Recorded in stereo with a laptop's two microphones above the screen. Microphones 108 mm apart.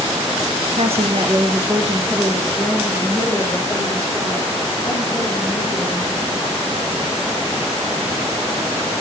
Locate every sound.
0.8 s a woman speaking: 65° right (ahead or behind), 0.8 m; by 6.7 s 20° left (ahead or behind), 4 m